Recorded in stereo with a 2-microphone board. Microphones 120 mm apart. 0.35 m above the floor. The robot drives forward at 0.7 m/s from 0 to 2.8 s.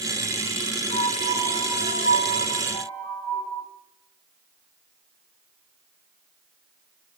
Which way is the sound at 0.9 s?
75° left (ahead or behind).